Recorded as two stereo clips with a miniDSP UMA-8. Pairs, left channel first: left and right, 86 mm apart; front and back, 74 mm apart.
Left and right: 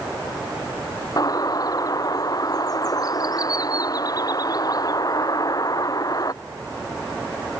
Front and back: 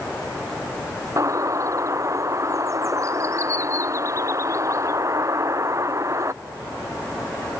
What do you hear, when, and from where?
1.2 s a bird: 135° left